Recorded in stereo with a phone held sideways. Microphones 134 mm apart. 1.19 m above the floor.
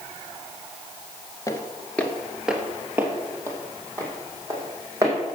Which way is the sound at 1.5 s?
25° left (ahead or behind).